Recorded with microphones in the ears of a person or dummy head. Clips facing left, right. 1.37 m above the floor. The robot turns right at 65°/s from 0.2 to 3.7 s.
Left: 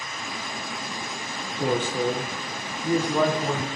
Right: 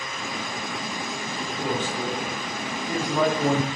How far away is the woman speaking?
About 0.9 m.